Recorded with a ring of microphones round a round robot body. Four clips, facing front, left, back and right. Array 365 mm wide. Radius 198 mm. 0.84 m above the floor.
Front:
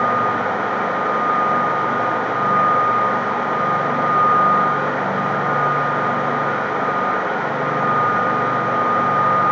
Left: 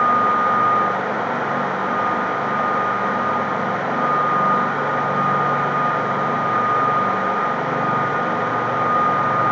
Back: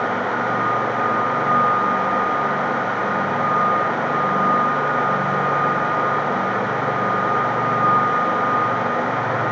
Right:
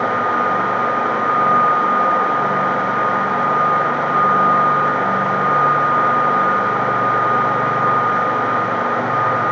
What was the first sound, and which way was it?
Only background noise.